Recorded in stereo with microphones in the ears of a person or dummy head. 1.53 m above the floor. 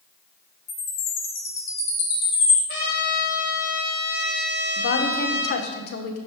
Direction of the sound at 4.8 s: 50° left (ahead or behind).